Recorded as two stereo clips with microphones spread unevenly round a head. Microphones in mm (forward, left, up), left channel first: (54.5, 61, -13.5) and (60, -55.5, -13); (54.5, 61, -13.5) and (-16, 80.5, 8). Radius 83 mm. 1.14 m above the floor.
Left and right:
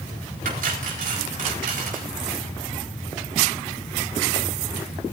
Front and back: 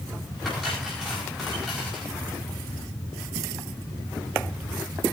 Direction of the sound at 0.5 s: 105° right.